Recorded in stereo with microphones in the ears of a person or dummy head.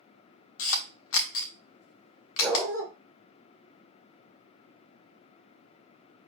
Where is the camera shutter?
80° left, 0.6 m.